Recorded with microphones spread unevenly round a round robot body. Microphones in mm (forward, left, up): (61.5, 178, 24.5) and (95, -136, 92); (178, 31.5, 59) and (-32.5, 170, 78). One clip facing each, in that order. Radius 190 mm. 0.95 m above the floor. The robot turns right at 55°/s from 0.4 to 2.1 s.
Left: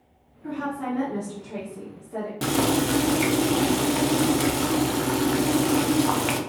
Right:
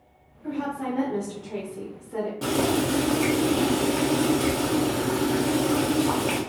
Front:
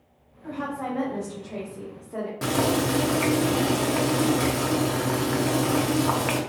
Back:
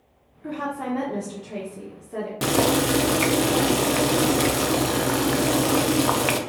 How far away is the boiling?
About 0.5 m.